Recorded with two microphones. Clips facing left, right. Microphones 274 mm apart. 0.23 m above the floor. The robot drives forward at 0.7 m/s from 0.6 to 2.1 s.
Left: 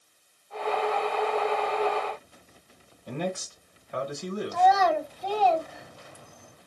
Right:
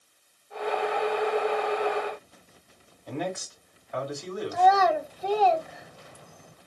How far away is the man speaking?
About 1.5 m.